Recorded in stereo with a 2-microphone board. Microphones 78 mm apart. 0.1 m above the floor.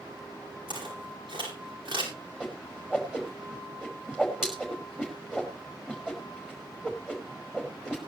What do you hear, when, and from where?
0.7 s footsteps: 85° right, 9.5 m
2.4 s a whoosh: 10° right (ahead or behind), 5 m